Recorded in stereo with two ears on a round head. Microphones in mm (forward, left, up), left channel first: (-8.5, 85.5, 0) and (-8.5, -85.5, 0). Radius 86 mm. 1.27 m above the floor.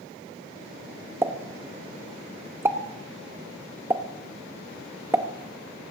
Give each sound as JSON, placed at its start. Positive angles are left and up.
{"t": 1.2, "sound": "a pop", "side_deg": -15, "distance_m": 0.9}